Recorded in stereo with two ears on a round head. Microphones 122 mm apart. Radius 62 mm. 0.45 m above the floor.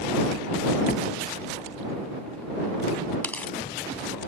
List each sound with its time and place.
0.9 s a door slam: 60° left (ahead or behind)
3.2 s tearing paper: 10° left (ahead or behind)